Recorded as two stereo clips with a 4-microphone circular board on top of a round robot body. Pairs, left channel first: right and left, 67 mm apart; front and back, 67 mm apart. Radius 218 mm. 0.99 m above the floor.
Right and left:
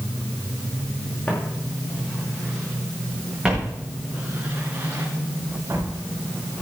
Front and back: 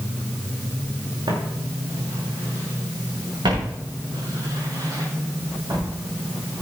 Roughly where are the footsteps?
Behind.